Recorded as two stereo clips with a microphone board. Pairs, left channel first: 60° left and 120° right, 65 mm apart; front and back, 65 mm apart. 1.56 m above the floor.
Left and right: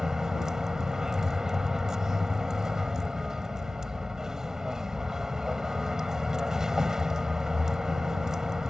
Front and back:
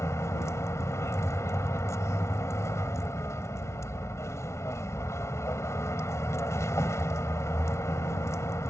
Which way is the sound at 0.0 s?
40° right.